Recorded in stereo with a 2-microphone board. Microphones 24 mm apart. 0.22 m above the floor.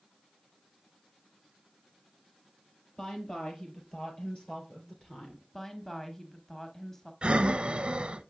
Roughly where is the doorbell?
No doorbell in this recording.